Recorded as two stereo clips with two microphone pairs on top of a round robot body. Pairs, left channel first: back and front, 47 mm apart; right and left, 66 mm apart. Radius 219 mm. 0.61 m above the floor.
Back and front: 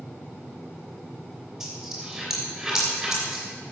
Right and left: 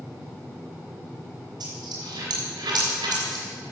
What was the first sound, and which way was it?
A dropped coin, 80° left.